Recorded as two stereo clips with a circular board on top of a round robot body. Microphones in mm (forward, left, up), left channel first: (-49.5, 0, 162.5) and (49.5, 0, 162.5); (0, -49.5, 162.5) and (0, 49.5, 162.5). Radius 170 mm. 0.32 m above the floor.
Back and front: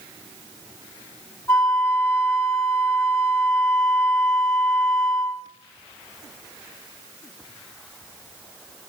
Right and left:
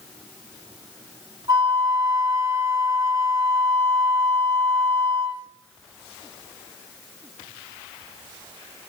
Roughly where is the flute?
Behind left.